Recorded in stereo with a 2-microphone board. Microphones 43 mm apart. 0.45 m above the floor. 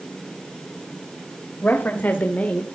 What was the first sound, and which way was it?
A woman speaking, 50° left (ahead or behind).